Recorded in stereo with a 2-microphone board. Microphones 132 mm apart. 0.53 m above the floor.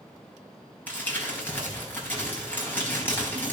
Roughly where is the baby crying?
No baby crying in this recording.